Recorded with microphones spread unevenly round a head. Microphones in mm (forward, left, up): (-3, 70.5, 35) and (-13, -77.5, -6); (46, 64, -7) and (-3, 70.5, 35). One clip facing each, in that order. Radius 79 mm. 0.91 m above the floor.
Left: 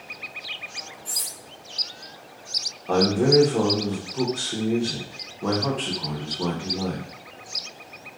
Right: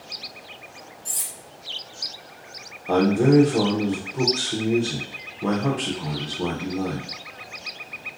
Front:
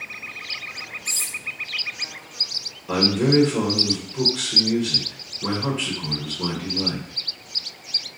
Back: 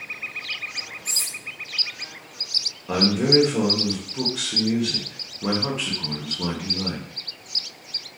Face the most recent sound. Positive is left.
turn(degrees=-45)